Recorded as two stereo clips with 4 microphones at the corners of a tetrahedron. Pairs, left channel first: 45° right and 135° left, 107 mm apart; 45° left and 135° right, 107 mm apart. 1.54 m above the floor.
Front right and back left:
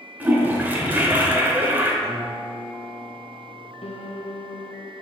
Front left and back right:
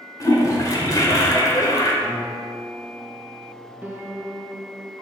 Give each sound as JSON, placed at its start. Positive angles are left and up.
{"t": 0.2, "sound": "a toilet flushing", "azimuth_deg": 70, "distance_m": 1.5}
{"t": 2.0, "sound": "a guitar", "azimuth_deg": 160, "distance_m": 1.6}
{"t": 3.8, "sound": "a piano", "azimuth_deg": -65, "distance_m": 0.8}